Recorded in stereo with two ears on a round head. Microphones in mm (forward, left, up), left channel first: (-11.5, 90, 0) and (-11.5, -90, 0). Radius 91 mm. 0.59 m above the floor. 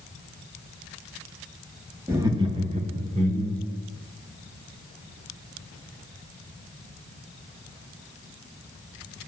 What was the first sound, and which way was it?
Laughter, 15° right (ahead or behind).